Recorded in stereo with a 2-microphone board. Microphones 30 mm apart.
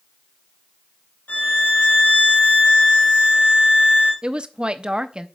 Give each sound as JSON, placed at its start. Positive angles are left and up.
{"t": 1.3, "sound": "a violin", "side_deg": 55, "distance_m": 2.5}
{"t": 4.2, "sound": "a woman speaking", "side_deg": -35, "distance_m": 0.6}